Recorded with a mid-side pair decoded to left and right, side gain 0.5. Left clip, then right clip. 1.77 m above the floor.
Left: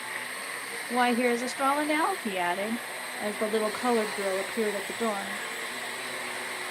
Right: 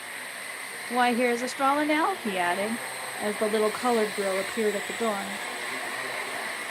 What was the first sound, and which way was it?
A woman speaking, 15° right.